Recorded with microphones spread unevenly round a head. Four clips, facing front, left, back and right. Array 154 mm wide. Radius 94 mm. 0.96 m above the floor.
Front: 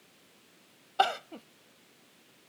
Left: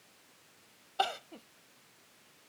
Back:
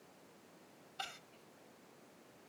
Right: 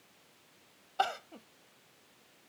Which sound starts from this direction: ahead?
Crying, at 1.0 s.